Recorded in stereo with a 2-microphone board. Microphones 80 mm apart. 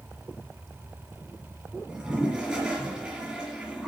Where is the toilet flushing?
5° right (ahead or behind), 3 m.